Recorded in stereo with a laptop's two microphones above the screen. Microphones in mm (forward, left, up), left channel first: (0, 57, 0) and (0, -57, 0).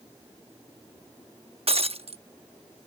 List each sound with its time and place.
1.7 s breaking glass: 60° right (ahead or behind)